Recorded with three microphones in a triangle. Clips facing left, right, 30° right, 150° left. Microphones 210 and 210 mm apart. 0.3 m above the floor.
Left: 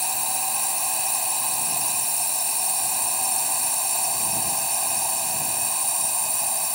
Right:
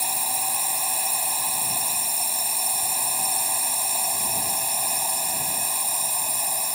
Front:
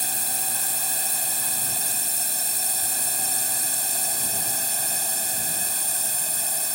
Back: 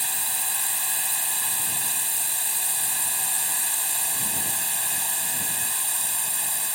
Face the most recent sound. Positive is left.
turn(degrees=-5)